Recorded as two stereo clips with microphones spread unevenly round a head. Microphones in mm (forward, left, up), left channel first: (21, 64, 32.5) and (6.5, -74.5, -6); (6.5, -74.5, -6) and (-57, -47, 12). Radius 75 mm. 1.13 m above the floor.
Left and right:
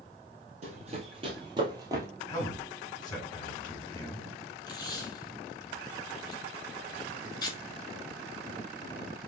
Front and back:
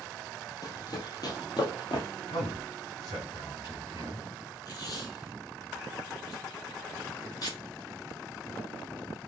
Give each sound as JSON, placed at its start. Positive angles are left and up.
{"t": 0.6, "sound": "running footsteps", "azimuth_deg": -50, "distance_m": 1.8}
{"t": 2.3, "sound": "a man speaking", "azimuth_deg": 20, "distance_m": 3.0}
{"t": 4.7, "sound": "tape being pulled", "azimuth_deg": 20, "distance_m": 1.9}